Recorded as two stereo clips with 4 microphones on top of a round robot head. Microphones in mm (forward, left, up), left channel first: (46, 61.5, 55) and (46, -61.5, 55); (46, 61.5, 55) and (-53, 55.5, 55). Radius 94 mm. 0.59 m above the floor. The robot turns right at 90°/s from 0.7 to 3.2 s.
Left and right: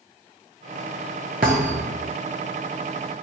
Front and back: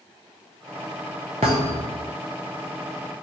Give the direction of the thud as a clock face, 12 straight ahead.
4 o'clock.